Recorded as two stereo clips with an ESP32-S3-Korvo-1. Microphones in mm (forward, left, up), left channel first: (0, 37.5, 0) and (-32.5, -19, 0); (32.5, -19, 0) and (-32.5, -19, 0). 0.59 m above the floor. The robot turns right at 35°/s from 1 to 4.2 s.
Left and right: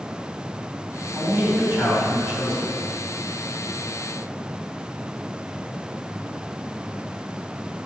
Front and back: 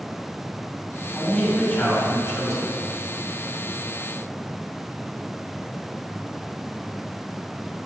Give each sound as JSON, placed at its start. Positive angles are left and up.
{"t": 1.1, "sound": "a man speaking", "azimuth_deg": -85, "distance_m": 2.0}